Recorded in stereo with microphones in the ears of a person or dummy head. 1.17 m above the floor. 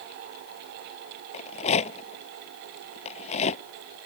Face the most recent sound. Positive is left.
turn(degrees=40)  # may be behind; listen again after turning